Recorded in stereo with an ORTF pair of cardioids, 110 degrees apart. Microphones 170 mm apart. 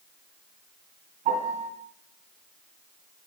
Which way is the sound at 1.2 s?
65° right.